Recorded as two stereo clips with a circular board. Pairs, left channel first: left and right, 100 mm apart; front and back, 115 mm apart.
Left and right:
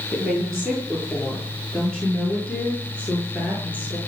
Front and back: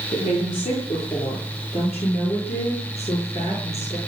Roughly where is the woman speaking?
Ahead.